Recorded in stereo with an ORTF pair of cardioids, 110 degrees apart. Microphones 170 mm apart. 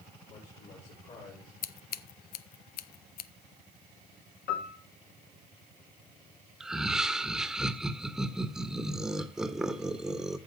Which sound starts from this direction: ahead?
Laughter, at 6.6 s.